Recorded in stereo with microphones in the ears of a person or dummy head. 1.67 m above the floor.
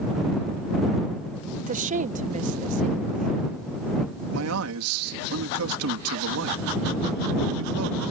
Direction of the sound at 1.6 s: 35° right (ahead or behind).